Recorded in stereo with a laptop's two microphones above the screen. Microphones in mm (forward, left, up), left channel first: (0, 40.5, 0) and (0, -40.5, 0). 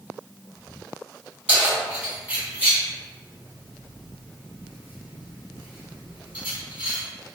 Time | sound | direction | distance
1.5 | keys jangling | 20° right (ahead or behind) | 1.8 m